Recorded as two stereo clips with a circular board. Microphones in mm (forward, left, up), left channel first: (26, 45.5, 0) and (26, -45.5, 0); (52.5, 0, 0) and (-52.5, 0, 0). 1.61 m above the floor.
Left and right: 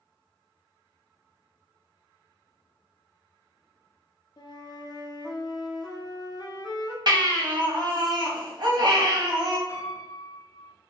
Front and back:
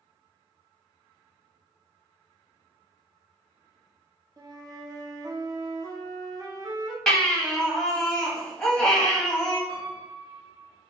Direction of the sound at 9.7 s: 145° left.